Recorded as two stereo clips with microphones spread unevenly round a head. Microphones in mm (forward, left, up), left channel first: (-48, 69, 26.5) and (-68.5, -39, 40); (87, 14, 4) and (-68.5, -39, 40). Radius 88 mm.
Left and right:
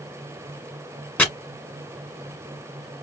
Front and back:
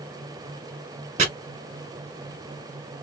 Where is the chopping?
160° left, 1.6 m.